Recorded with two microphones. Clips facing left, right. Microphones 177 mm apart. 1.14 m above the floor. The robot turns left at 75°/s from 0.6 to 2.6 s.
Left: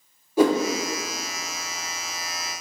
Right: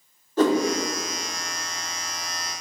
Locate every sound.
0.4 s a whoosh: 10° left (ahead or behind), 0.8 m